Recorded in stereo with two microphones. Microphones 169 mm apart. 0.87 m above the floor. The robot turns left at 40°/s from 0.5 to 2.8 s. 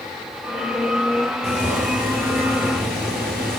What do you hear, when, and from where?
1.4 s boiling: 40° right, 3.5 m; by 3.6 s 95° right, 3.5 m